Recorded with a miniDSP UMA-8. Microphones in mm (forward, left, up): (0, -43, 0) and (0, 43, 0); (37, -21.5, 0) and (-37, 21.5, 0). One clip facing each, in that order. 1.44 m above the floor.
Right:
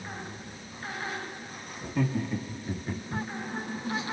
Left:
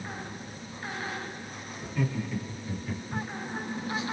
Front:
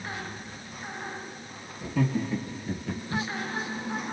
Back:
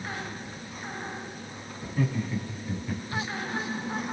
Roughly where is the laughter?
Ahead right.